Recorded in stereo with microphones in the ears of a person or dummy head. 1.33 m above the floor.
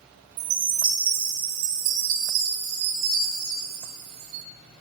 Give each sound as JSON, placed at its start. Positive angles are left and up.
{"t": 0.4, "sound": "a chime", "side_deg": -45, "distance_m": 1.3}